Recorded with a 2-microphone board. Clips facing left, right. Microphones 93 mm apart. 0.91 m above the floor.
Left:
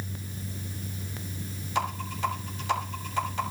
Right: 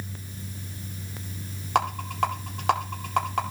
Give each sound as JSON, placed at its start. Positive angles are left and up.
{"t": 1.8, "sound": "a rattle", "side_deg": -70, "distance_m": 2.5}